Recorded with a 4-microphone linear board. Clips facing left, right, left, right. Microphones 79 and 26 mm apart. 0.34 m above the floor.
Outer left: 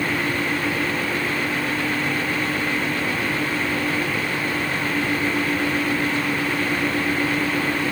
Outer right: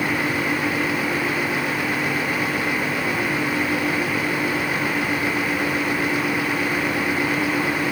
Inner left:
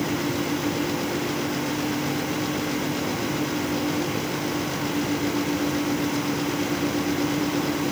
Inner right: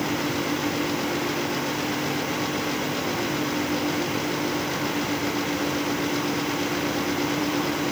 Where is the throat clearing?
No throat clearing in this recording.